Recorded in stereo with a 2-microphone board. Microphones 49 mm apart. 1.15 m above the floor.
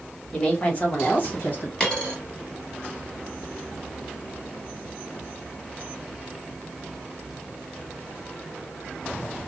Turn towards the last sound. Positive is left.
turn(degrees=15)  # may be behind; listen again after turning